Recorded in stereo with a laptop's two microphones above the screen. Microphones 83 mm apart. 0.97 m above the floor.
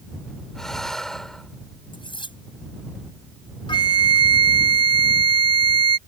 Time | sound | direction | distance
0.6 | breathing | 5° left (ahead or behind) | ?
1.9 | cutlery clinking | 80° left | ?
3.7 | a flute | 70° left (ahead or behind) | ?